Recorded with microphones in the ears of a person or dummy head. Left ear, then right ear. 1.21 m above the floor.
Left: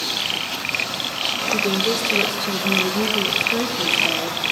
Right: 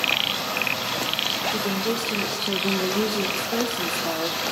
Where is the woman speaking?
15° left (ahead or behind), 1.7 m; by 4.4 s 25° right (ahead or behind), 2 m.